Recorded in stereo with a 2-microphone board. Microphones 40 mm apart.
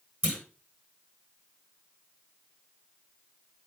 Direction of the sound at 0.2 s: 50° right (ahead or behind).